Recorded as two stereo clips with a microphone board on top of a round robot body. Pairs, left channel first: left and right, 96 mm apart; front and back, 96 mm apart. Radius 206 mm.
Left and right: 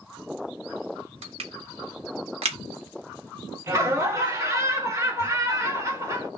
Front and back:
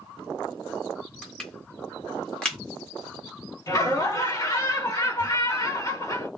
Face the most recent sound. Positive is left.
turn(degrees=-45)